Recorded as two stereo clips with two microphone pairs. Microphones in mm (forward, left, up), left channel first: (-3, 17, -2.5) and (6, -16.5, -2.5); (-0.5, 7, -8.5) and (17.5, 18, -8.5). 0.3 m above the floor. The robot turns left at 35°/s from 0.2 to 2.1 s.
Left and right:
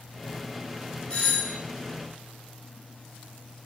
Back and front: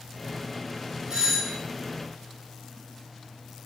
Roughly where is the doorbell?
Ahead left.